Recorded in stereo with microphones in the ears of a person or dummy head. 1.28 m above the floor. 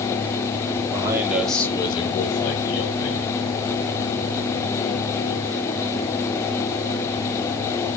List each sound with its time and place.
0.9 s a man speaking: 25° right (ahead or behind), 1.2 m; by 3.3 s 75° left (ahead or behind), 1.7 m